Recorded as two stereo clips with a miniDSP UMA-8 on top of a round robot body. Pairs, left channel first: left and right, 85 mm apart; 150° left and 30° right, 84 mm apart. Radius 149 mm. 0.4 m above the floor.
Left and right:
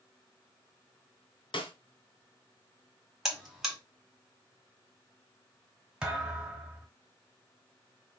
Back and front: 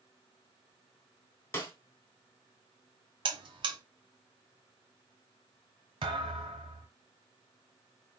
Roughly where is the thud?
Ahead.